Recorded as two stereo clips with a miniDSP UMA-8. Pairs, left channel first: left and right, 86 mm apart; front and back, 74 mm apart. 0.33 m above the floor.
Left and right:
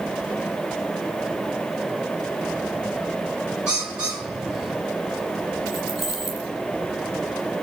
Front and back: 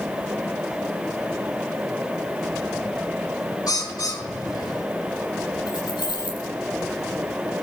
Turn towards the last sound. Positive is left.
turn(degrees=-5)